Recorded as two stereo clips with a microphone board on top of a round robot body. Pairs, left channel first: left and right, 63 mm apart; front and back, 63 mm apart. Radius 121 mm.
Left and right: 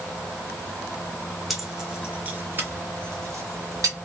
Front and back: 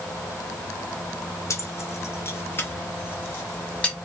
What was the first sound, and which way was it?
Keys jangling, straight ahead.